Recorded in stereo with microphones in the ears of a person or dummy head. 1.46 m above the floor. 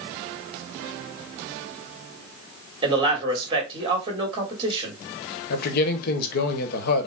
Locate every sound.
2.8 s a man speaking: 25° right (ahead or behind), 2 m
5.5 s a man speaking: 60° left (ahead or behind), 1.2 m